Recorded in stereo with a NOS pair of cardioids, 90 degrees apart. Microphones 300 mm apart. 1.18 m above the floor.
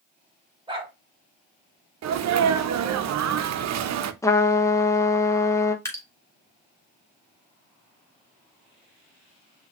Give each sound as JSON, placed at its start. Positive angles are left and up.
{"t": 0.7, "sound": "a dog barking", "azimuth_deg": -15, "distance_m": 2.5}
{"t": 2.0, "sound": "a sneeze", "azimuth_deg": -60, "distance_m": 0.9}
{"t": 4.2, "sound": "a trumpet", "azimuth_deg": 10, "distance_m": 1.0}
{"t": 5.8, "sound": "dripping", "azimuth_deg": 10, "distance_m": 2.0}